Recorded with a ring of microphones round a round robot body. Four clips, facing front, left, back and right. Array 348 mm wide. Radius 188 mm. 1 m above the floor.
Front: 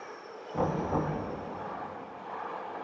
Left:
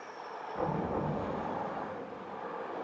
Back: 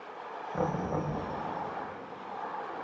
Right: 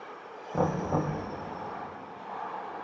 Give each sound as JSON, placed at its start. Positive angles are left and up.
{"t": 0.5, "sound": "knocking", "azimuth_deg": -100, "distance_m": 5.0}